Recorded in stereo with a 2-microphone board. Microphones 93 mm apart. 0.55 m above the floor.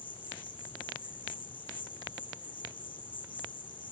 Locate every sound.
0.0 s an insect: 60° left (ahead or behind), 1.0 m